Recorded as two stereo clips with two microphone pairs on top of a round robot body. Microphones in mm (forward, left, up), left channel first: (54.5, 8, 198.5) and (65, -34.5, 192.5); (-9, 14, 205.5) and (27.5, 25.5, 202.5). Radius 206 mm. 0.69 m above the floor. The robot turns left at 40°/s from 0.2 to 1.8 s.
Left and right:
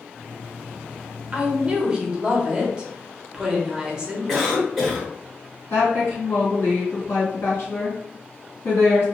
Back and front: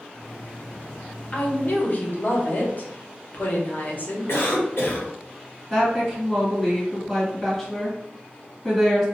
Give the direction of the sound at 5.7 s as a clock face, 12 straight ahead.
8 o'clock.